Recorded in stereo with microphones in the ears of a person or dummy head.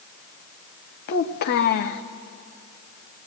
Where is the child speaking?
50° left (ahead or behind), 1.0 m.